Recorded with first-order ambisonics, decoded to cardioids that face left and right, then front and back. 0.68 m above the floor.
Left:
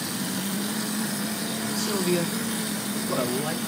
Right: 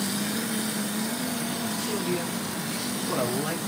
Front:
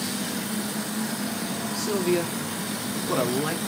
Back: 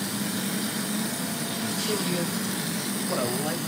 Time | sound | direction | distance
1.8 | a man speaking | 50° left | 1.0 m